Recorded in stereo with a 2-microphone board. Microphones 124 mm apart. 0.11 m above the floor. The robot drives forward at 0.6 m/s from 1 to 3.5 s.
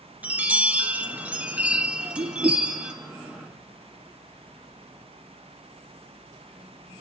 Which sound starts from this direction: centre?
A chime, at 0.2 s.